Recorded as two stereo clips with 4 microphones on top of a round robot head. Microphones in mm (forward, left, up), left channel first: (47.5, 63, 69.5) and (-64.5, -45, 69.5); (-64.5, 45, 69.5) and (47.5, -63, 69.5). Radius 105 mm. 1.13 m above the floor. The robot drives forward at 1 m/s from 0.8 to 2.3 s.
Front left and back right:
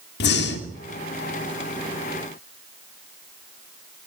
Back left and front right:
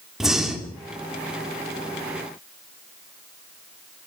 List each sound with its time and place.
0.2 s breathing: 45° left, 2.5 m